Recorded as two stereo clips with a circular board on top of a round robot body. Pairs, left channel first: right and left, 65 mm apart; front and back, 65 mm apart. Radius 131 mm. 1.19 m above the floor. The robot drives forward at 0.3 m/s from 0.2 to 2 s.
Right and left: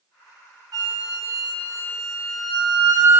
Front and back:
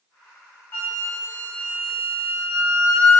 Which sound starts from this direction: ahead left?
A flute, at 0.7 s.